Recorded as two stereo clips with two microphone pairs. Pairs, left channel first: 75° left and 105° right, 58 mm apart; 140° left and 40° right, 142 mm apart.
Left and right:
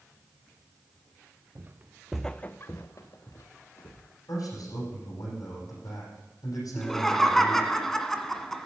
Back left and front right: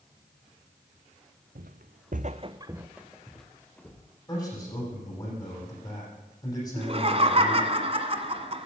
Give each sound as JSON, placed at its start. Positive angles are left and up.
{"t": 1.6, "sound": "footsteps", "azimuth_deg": -55, "distance_m": 1.1}
{"t": 4.3, "sound": "a man speaking", "azimuth_deg": 80, "distance_m": 8.5}
{"t": 6.8, "sound": "laughter", "azimuth_deg": -10, "distance_m": 1.5}